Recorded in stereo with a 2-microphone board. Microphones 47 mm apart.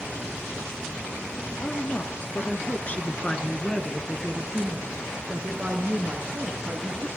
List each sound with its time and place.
1.6 s a woman speaking: 50° left (ahead or behind), 2 m; by 7.1 s 50° right (ahead or behind), 3 m